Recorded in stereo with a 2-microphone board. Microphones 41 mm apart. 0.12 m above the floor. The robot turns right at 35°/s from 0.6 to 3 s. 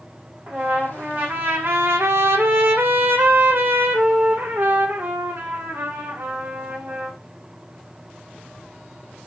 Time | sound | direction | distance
0.5 | a trumpet | 145° right | 6 m